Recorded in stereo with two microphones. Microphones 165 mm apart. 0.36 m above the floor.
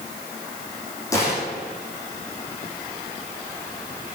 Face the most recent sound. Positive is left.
turn(degrees=20)  # may be behind; listen again after turning